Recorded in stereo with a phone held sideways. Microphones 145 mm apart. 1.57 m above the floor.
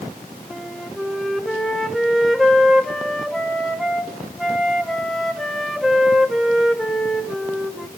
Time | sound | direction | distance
0.5 | a flute | centre (ahead or behind) | 1.2 m